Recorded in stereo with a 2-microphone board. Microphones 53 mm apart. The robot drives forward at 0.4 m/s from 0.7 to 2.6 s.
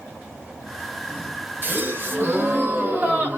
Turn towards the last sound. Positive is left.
turn(degrees=-35)  # may be behind; listen again after turning